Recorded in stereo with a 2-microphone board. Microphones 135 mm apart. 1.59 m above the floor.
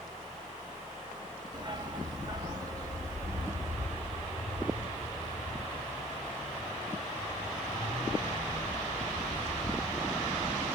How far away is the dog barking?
About 1.1 m.